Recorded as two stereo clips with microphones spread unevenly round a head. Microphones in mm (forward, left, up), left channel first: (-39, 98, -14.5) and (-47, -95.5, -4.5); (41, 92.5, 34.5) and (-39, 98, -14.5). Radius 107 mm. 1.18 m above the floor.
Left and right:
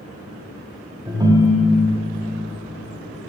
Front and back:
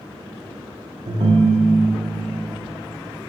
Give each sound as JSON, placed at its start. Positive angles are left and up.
{"t": 1.1, "sound": "a ringtone", "azimuth_deg": -130, "distance_m": 0.7}